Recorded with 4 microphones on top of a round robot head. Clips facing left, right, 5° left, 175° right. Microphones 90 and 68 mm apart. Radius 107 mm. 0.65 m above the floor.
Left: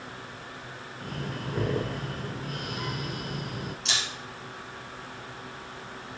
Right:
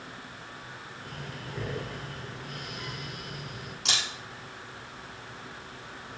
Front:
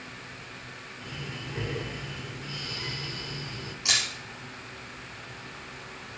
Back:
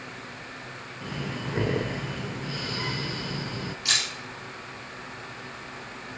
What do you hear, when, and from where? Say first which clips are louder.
1.0 s breathing: left 8 dB, back 7 dB; 145° left, 0.5 m
3.9 s a camera shutter: left 1 dB, front 2 dB; 70° right, 7 m